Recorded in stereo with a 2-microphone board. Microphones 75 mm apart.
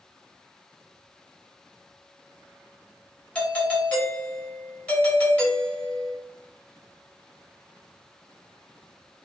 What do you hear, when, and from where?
3.4 s a doorbell: 15° left (ahead or behind), 1.3 m